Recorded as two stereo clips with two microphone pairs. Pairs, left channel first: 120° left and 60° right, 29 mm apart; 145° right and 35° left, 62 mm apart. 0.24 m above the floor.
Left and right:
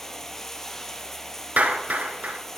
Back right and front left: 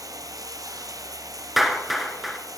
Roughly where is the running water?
Ahead left.